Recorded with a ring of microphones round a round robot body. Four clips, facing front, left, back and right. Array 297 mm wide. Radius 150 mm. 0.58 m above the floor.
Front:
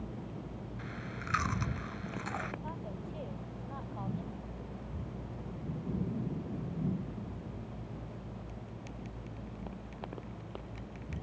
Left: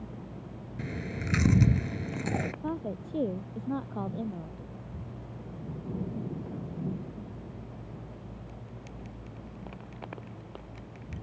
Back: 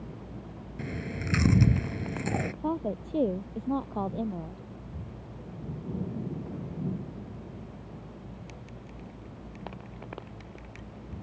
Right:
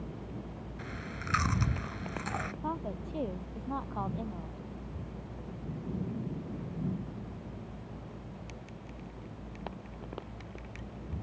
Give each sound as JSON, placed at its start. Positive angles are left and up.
{"t": 0.8, "sound": "chewing", "azimuth_deg": 140}
{"t": 2.6, "sound": "a woman speaking", "azimuth_deg": 155}